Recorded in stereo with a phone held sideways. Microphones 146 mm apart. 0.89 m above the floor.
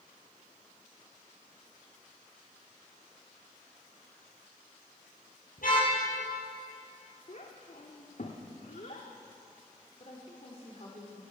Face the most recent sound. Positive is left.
turn(degrees=45)  # may be behind; listen again after turning